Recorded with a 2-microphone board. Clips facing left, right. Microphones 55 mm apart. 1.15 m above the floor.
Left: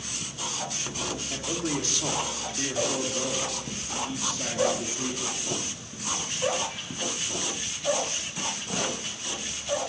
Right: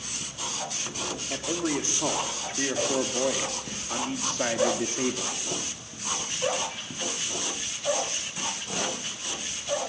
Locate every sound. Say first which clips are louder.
1.3 s a man speaking: right 3 dB; 20° right (ahead or behind), 3.5 m; by 5.4 s 60° right (ahead or behind), 3 m